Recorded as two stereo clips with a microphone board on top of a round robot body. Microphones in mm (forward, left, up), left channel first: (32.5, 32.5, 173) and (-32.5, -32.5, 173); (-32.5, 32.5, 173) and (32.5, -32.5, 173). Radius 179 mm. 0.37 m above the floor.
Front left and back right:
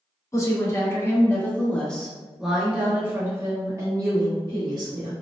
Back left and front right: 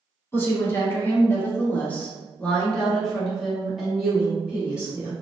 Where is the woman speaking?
85° left, 1.7 m; by 5.1 s 120° right, 1.8 m.